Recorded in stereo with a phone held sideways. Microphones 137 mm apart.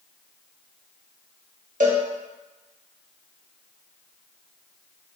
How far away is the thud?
I don't hear a thud.